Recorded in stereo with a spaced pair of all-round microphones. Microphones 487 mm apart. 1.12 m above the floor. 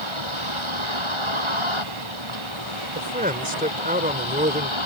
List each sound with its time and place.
0.0 s a vehicle: 65° right (ahead or behind)
3.0 s a man speaking: 15° right (ahead or behind)